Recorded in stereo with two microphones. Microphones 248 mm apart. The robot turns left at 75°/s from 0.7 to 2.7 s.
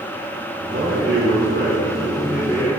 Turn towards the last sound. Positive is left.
turn(degrees=160)